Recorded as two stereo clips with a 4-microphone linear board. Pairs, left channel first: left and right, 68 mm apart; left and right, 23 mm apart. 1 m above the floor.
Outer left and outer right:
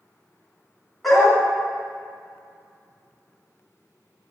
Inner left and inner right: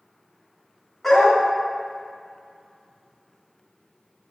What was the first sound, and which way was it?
A dog barking, 5° left (ahead or behind).